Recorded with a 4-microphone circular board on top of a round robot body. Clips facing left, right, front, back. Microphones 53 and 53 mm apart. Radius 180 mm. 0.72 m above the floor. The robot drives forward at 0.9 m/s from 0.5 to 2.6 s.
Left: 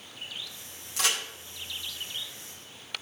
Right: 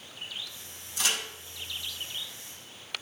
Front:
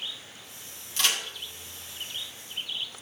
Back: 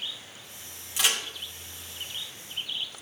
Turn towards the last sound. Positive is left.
turn(degrees=120)